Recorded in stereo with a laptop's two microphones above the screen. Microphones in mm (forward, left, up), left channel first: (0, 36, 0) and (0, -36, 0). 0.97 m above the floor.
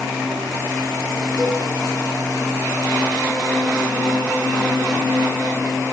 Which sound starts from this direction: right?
A cowbell, at 1.4 s.